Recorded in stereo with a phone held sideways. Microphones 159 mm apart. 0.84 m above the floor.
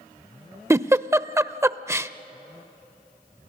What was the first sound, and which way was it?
A giggle, 15° right (ahead or behind).